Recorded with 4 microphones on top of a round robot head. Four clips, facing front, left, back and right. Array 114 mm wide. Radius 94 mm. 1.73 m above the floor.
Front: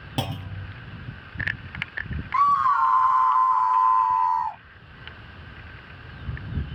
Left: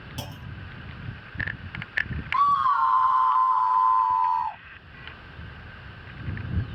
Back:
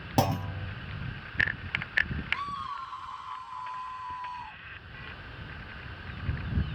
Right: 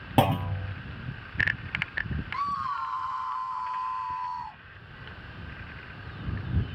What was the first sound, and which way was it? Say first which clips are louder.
A clunk: right 18 dB, back 4 dB; 110° right.